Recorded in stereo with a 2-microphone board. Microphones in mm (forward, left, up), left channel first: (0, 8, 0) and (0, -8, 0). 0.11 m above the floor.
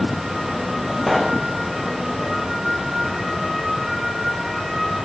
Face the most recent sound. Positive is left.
turn(degrees=5)  # may be behind; listen again after turning